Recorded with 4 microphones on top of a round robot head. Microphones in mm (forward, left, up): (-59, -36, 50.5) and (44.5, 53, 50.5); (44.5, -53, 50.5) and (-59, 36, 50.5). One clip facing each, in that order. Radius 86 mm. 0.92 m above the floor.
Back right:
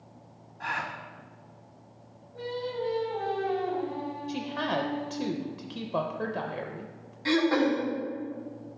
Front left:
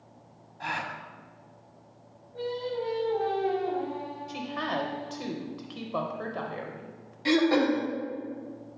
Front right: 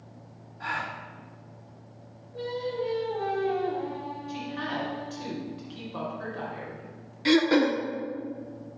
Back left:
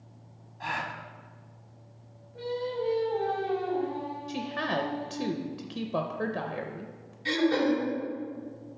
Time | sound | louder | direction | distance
0.6 | a gasp | even, even | 80° left | 0.8 m
2.3 | singing | front left 2 dB, front right 1 dB | 25° right | 2.5 m
4.3 | a woman speaking | back right 2 dB, back left 2 dB | 155° left | 0.6 m
7.2 | throat clearing | front left 1 dB, front right 4 dB | 35° right | 0.8 m